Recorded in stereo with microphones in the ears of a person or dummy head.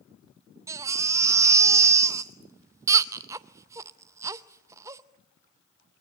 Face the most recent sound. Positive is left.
turn(degrees=-15)  # may be behind; listen again after turning